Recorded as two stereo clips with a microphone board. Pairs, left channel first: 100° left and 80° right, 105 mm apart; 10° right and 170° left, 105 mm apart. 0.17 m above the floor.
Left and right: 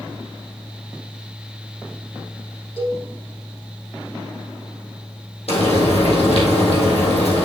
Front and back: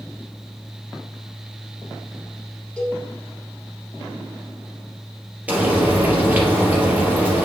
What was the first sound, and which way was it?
A cowbell, 70° left.